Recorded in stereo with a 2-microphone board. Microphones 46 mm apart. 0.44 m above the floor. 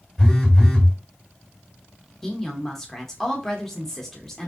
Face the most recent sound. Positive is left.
turn(degrees=10)  # may be behind; listen again after turning